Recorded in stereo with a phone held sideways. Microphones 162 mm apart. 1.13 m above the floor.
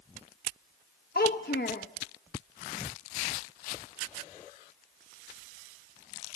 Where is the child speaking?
80° left, 1.1 m.